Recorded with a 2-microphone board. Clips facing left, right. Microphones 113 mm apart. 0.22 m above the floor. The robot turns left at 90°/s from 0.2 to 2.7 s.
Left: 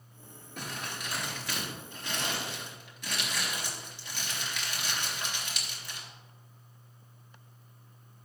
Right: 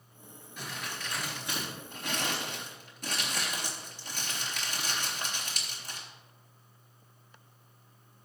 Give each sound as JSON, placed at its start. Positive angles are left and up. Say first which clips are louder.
{"t": 0.6, "sound": "crumpling", "louder": "left 1 dB", "side_deg": 55, "distance_m": 3.0}